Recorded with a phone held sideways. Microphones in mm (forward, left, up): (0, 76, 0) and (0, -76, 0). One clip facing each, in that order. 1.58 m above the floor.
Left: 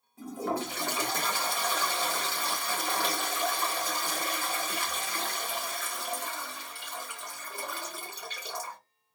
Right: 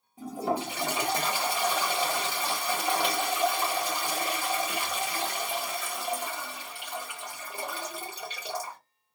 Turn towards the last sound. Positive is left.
turn(degrees=-20)  # may be behind; listen again after turning